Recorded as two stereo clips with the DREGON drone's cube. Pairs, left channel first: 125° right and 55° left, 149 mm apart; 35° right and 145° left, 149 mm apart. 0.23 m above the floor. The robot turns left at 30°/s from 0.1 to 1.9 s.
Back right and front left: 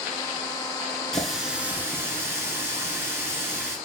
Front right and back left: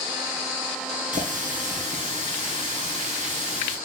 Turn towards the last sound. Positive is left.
turn(degrees=125)